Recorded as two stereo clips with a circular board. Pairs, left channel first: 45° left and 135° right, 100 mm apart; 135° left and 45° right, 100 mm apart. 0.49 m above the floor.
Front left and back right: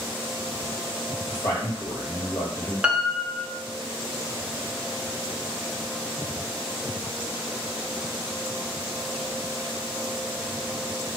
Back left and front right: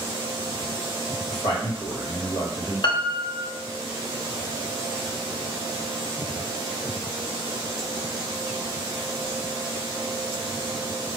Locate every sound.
1.3 s a man speaking: 85° left, 2 m
2.8 s a piano: 145° left, 0.6 m